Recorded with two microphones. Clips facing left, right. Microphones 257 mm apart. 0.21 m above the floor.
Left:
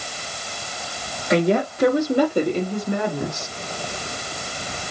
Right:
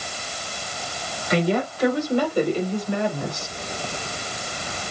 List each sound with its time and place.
1.3 s a woman speaking: 50° left (ahead or behind), 7.5 m